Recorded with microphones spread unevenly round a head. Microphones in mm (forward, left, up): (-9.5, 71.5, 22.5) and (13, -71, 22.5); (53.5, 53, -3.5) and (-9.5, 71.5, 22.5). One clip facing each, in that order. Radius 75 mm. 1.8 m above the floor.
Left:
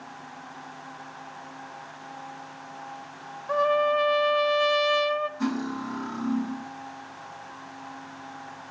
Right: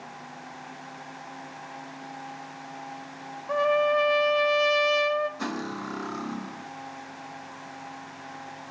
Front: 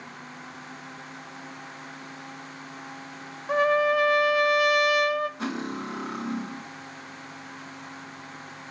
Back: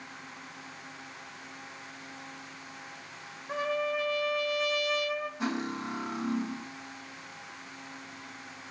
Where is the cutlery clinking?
55° right, 4.5 m.